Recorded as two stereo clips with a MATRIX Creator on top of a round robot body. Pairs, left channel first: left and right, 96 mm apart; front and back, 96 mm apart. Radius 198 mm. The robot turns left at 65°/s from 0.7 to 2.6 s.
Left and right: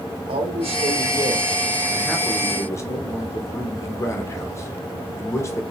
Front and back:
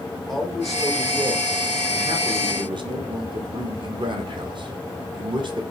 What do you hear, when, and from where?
0.3 s a man speaking: 90° right, 0.9 m; by 5.6 s 150° left, 0.9 m